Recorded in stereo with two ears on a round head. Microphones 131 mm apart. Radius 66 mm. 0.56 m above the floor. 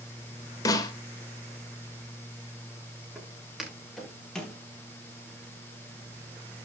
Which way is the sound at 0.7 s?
25° left (ahead or behind).